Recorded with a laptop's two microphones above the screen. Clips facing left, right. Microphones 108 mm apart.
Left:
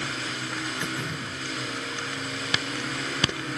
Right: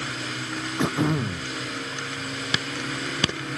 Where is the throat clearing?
80° right.